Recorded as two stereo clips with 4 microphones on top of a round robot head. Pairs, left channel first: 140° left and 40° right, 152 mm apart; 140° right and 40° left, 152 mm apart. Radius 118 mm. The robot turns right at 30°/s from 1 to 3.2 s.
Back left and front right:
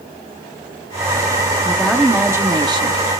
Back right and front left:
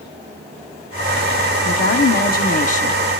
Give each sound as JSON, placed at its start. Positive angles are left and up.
{"t": 1.6, "sound": "a woman speaking", "azimuth_deg": -135, "distance_m": 1.0}